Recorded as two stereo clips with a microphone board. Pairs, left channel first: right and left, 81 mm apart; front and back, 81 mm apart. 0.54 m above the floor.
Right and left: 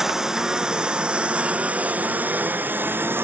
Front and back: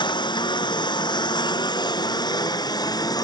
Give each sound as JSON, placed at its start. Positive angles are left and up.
{"t": 0.0, "sound": "a lawn mower", "azimuth_deg": 5}